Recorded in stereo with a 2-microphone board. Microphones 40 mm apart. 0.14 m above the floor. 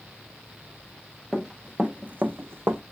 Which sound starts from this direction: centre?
Running footsteps, at 1.3 s.